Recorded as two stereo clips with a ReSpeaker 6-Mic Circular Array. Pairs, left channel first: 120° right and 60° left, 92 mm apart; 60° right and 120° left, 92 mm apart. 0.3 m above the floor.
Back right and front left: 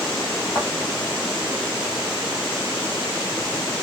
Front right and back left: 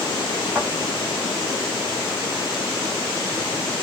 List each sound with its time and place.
0.6 s a thud: 170° right, 2.5 m